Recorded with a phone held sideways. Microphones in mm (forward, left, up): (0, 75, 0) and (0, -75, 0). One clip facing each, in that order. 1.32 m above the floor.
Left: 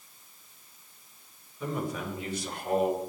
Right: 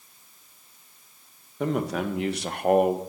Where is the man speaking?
80° right, 1.8 m; by 3.0 s 55° right (ahead or behind), 1.2 m.